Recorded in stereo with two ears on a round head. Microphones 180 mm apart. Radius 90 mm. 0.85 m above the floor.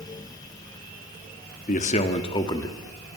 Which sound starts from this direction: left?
A man speaking, at 1.7 s.